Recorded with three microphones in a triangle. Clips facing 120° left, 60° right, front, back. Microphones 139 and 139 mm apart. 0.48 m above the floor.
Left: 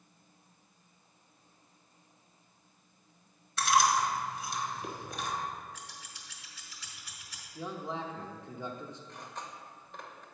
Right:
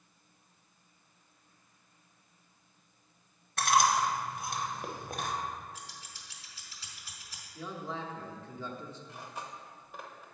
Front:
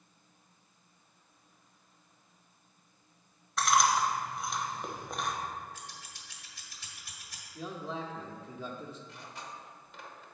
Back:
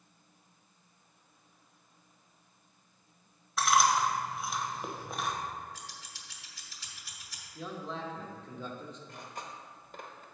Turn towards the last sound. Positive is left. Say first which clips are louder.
# right 1 dB, back 2 dB
turn(degrees=-140)